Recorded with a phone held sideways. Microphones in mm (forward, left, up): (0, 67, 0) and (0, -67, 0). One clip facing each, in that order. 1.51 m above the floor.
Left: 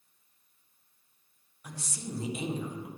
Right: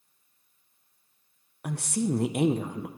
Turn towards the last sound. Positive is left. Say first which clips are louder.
# right 13 dB
turn(degrees=-65)  # may be behind; listen again after turning